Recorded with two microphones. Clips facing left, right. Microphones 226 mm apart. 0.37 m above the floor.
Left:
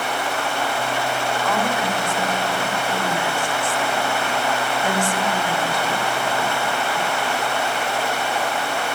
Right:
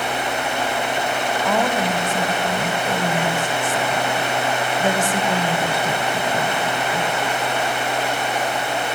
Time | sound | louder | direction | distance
1.4 | a woman speaking | right 4 dB | 55° right (ahead or behind) | 2.5 m